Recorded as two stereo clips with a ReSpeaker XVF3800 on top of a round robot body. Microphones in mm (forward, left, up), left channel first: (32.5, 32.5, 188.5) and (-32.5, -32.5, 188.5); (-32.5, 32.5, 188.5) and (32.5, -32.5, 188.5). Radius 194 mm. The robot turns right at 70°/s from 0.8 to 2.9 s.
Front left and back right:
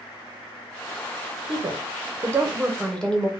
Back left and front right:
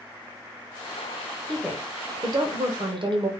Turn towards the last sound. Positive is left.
turn(degrees=-35)